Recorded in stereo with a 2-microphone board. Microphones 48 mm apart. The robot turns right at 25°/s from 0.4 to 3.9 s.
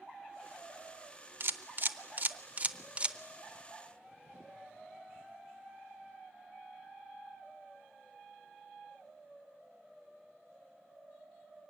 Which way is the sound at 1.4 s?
50° right (ahead or behind).